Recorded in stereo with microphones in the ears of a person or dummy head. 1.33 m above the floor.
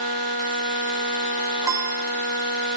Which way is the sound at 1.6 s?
15° right (ahead or behind).